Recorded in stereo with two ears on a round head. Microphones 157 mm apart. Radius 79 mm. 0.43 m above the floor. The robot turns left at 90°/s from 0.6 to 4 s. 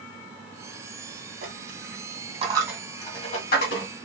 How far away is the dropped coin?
About 1.8 m.